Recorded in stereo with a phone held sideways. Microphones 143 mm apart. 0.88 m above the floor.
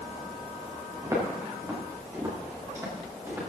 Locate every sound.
1.0 s footsteps: 20° right (ahead or behind), 7 m; by 3.4 s 15° right (ahead or behind), 8.5 m